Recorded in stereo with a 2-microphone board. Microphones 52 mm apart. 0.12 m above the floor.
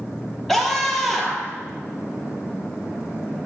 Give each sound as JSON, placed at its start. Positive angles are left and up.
{"t": 0.5, "sound": "a scream", "side_deg": 5, "distance_m": 2.5}